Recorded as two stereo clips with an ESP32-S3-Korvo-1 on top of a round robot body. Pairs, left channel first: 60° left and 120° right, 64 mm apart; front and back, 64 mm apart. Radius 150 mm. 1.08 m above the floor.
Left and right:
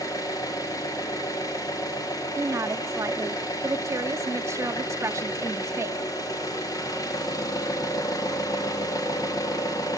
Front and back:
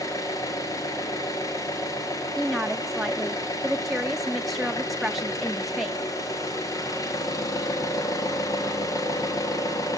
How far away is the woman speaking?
About 0.8 m.